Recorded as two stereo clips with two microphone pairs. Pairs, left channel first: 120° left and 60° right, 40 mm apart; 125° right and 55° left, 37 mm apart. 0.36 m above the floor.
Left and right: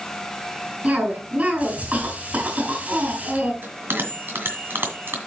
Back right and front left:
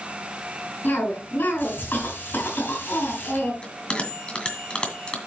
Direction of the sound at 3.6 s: 70° right.